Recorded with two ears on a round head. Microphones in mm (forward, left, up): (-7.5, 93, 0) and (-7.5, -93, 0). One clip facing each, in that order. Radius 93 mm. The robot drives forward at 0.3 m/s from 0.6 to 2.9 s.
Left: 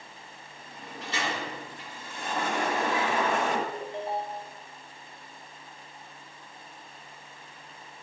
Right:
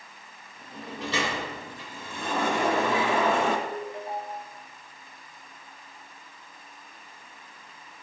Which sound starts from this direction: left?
A ringtone, at 3.7 s.